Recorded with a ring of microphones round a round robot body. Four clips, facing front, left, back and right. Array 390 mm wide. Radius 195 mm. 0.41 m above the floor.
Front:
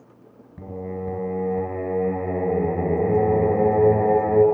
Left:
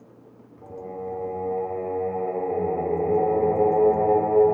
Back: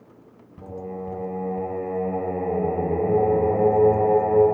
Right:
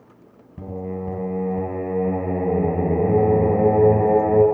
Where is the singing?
80° right, 3.5 m.